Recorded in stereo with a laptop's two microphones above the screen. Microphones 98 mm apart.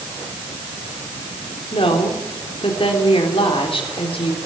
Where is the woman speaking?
70° left (ahead or behind), 3.5 m.